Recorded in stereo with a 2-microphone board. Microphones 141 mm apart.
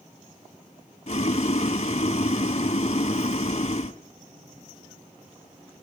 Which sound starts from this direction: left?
Boiling, at 1.1 s.